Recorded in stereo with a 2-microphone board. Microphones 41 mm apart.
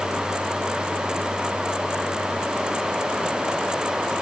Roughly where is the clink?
No clink in this recording.